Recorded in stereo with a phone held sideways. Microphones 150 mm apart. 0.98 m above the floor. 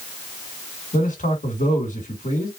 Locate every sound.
0.9 s a man speaking: 60° left (ahead or behind), 2 m